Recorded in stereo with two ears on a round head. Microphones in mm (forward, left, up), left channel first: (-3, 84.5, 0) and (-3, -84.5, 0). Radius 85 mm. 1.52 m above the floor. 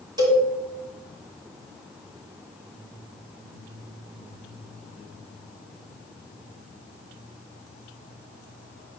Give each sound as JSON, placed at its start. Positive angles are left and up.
{"t": 0.2, "sound": "a cowbell", "side_deg": -20, "distance_m": 2.5}